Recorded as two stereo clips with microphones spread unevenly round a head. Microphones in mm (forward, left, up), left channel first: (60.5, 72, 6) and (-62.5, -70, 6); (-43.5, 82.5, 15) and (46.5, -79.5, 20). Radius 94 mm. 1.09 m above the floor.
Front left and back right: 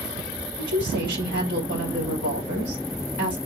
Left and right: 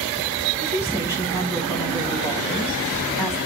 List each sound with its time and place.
0.6 s a woman speaking: 140° right, 3.5 m